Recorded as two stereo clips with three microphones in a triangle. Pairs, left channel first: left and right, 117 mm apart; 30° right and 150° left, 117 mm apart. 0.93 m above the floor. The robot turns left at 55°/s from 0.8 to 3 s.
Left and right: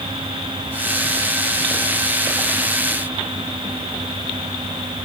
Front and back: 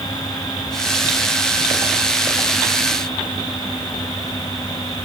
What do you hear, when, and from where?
Only background noise.